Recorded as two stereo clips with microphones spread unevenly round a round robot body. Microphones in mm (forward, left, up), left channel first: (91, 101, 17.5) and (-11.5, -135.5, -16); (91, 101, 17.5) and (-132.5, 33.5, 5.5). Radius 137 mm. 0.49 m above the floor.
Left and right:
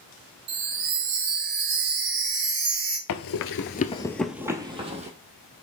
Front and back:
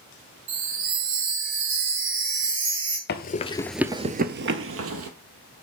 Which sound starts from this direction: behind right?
A chime, at 0.5 s.